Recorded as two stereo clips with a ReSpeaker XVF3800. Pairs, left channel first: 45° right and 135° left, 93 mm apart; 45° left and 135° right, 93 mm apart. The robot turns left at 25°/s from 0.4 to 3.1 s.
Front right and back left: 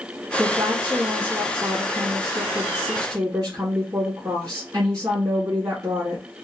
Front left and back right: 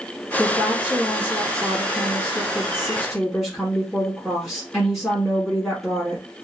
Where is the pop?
I don't hear a pop.